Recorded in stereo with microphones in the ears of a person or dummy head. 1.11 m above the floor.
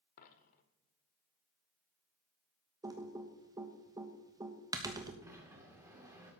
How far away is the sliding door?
About 2.5 m.